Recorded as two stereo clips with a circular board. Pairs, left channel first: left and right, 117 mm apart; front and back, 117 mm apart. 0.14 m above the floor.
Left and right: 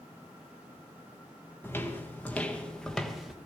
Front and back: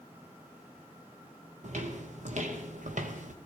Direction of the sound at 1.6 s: 165° left.